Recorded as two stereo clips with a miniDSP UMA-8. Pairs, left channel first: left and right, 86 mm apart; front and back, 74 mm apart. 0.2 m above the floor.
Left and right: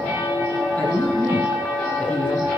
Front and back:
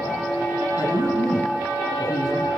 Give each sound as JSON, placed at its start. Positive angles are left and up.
{"t": 0.8, "sound": "a man speaking", "azimuth_deg": 20, "distance_m": 2.5}